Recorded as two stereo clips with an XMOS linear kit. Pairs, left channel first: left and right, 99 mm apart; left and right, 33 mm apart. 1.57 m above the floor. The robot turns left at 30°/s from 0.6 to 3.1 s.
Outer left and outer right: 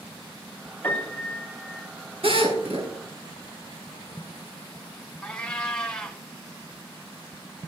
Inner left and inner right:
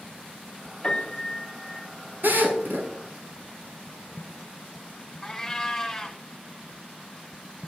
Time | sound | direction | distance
0.8 | a piano | 20° left | 5 m
2.2 | a drill | 70° right (ahead or behind) | 6.5 m
5.2 | a cat meowing | 10° left (ahead or behind) | 1.6 m